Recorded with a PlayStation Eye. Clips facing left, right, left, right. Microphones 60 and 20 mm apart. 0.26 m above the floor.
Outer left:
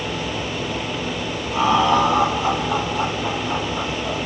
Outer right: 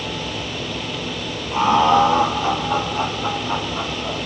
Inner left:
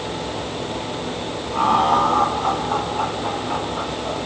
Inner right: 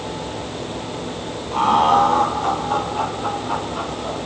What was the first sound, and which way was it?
Laughter, 45° right (ahead or behind).